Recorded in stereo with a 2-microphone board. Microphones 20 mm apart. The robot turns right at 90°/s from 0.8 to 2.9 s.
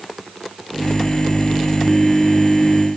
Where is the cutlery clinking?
No cutlery clinking in this recording.